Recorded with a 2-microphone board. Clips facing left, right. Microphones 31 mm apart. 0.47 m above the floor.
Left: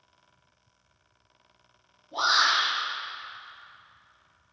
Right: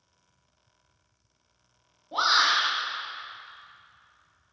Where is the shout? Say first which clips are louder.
Right 1 dB; 45° right (ahead or behind), 1.1 m.